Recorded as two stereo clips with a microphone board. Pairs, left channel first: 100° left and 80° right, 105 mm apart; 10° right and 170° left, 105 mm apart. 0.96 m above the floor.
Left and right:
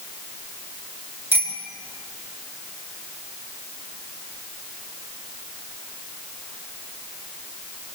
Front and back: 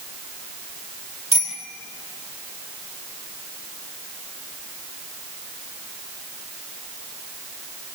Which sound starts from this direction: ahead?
A bicycle bell, at 1.3 s.